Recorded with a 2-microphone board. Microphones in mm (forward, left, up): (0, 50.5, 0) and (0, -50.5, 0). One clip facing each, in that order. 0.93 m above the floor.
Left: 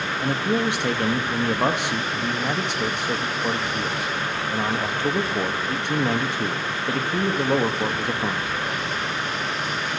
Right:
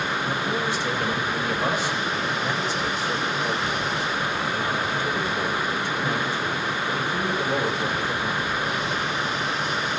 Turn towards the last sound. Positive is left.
turn(degrees=65)  # may be behind; listen again after turning